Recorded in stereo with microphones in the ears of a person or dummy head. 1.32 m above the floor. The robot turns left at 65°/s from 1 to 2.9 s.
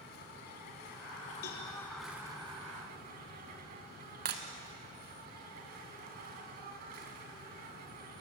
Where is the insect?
65° left, 3.5 m; by 8.2 s 60° right, 3.5 m.